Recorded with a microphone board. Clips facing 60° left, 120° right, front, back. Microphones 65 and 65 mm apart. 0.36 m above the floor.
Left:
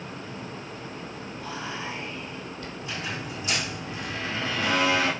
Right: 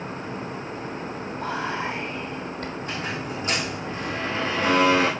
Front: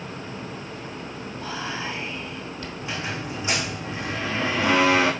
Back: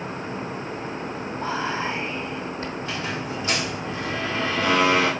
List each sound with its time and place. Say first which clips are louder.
1.4 s whispering: right 7 dB, back 5 dB; 130° right, 2.5 m
2.8 s a squeak: right 1 dB, front 2 dB; 75° right, 3 m